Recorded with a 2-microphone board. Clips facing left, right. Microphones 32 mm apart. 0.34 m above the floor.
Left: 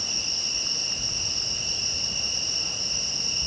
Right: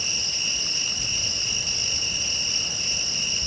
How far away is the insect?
About 7 m.